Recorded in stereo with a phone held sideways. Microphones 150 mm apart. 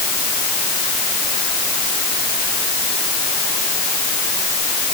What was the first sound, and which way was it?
Only background noise.